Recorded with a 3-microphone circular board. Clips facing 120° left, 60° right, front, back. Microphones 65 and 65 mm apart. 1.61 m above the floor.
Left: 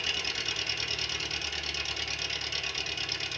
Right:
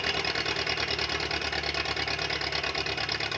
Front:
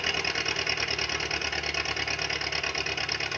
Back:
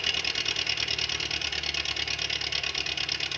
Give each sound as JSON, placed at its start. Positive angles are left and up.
{"t": 0.0, "sound": "an engine running", "azimuth_deg": -55, "distance_m": 0.9}